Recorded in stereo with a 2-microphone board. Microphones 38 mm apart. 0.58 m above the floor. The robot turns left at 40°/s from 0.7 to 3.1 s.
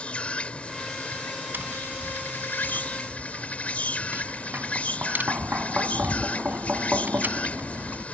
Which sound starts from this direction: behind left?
An insect, at 0.0 s.